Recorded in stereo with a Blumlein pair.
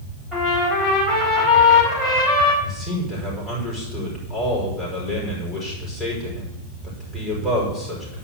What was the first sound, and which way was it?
A trumpet, straight ahead.